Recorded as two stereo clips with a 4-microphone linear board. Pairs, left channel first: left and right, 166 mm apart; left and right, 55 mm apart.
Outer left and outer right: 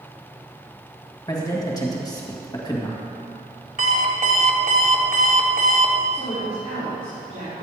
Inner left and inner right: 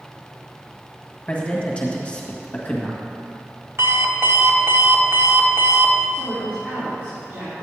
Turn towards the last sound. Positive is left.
turn(degrees=-40)  # may be behind; listen again after turning